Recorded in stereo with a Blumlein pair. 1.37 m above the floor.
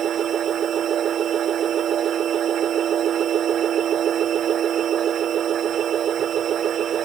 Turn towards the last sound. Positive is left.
turn(degrees=-25)